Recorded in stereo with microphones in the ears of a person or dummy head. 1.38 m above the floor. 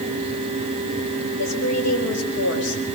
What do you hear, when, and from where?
1.4 s a woman speaking: 85° left, 5 m